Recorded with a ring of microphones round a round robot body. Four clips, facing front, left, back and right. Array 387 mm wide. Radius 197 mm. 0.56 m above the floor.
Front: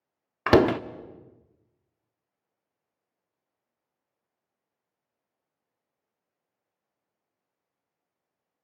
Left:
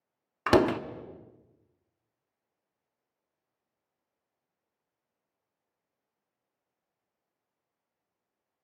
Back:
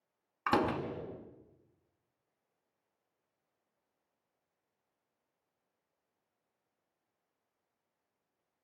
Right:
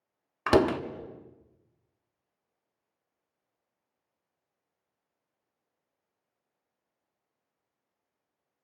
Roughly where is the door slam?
Ahead.